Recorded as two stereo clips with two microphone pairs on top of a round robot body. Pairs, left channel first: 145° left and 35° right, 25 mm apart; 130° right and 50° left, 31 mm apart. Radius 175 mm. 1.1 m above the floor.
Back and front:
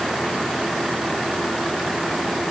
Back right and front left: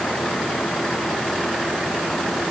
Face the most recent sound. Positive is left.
No sound to turn to.